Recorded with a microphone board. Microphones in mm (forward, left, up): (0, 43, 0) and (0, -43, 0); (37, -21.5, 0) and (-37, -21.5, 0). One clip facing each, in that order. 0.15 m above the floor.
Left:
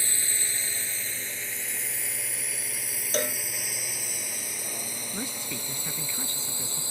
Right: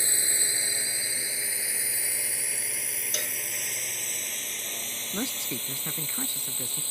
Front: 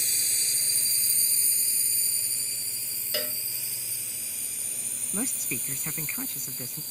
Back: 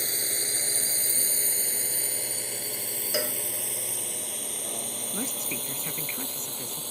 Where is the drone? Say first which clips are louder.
Right 1 dB, back 5 dB; 160° right; by 6.9 s 165° left.